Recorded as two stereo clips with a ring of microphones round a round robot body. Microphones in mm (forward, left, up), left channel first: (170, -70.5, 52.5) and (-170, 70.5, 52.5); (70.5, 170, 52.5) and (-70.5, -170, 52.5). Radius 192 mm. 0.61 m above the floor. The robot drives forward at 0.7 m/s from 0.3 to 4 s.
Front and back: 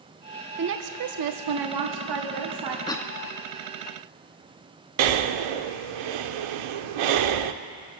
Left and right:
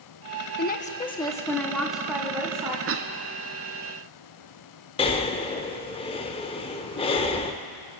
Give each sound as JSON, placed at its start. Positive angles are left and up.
{"t": 0.6, "sound": "a woman speaking", "azimuth_deg": 115, "distance_m": 0.8}
{"t": 2.9, "sound": "a cough", "azimuth_deg": -90, "distance_m": 0.7}
{"t": 5.0, "sound": "breathing", "azimuth_deg": 145, "distance_m": 0.7}